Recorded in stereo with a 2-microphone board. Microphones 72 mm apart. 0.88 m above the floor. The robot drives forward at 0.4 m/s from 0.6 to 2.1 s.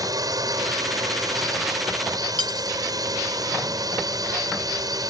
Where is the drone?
50° right (ahead or behind); by 5.1 s 55° right (ahead or behind).